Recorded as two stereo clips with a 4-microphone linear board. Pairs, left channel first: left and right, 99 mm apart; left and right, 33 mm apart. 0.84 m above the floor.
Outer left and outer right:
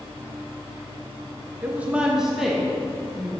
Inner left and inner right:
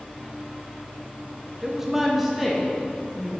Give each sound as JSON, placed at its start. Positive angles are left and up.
{"t": 1.6, "sound": "a woman speaking", "side_deg": -15, "distance_m": 0.7}